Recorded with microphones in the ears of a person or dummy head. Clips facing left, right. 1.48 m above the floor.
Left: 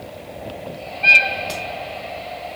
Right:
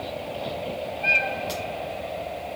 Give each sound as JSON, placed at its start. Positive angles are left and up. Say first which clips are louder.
{"t": 1.5, "sound": "a crack", "louder": "left 2 dB", "side_deg": 0, "distance_m": 0.8}